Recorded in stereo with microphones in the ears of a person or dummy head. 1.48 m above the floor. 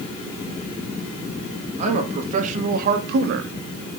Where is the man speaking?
40° right (ahead or behind), 3 m; by 3.5 s 80° right, 1.2 m.